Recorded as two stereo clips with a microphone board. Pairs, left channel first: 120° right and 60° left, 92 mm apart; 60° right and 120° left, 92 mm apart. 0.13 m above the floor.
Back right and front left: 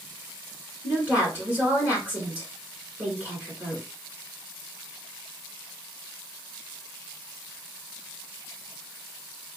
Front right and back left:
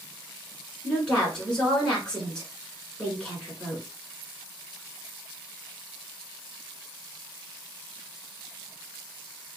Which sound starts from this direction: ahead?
A woman speaking, at 0.8 s.